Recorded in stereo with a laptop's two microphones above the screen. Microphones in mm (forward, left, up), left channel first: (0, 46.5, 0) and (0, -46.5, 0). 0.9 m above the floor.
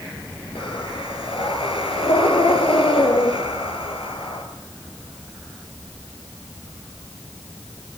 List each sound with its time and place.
0.6 s breathing: 80° left, 4.5 m